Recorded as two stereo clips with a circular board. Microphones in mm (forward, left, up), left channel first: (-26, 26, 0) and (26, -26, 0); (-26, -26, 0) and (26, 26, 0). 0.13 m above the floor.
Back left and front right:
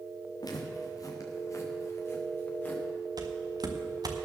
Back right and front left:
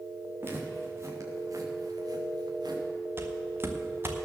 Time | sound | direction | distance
0.4 | footsteps | 105° left | 4 m
3.2 | footsteps | 15° right | 2 m